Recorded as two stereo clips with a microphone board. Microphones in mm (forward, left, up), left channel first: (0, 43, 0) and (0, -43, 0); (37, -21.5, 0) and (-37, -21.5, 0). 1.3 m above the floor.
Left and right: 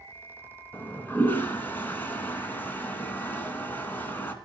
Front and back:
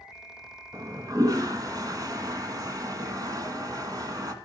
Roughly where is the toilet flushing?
Behind left.